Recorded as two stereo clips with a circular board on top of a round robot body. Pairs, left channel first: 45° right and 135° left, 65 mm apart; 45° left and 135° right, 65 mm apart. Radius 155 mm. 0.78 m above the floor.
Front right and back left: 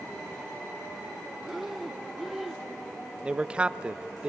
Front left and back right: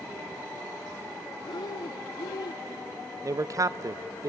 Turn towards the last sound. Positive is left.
turn(degrees=-155)